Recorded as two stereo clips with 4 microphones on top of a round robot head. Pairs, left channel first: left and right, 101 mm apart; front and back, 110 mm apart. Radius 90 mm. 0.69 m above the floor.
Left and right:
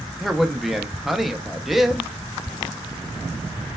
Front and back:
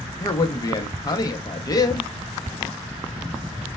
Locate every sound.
0.2 s a man speaking: 5° right, 0.5 m